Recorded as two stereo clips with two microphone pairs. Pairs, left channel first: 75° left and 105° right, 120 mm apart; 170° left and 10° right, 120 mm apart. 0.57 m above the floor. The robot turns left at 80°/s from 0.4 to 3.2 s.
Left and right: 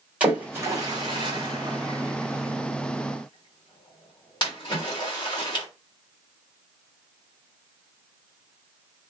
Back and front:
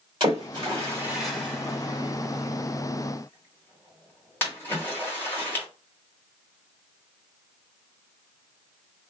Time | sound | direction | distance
0.2 | a splash | 35° right | 1.7 m